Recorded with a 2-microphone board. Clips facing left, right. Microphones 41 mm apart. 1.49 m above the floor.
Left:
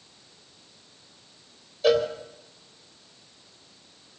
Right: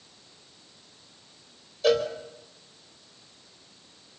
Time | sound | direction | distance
1.8 | a cowbell | 5° left (ahead or behind) | 3 m